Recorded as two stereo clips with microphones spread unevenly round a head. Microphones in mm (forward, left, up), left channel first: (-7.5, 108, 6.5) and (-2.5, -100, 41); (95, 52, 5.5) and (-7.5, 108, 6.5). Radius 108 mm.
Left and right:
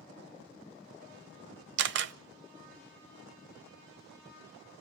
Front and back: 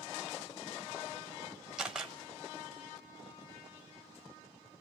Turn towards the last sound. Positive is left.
turn(degrees=-120)